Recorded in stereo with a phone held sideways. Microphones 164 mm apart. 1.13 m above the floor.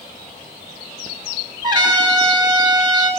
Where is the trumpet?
25° right (ahead or behind), 3.5 m.